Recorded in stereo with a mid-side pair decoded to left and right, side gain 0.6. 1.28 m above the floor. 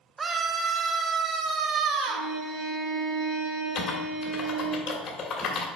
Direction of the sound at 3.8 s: 50° left.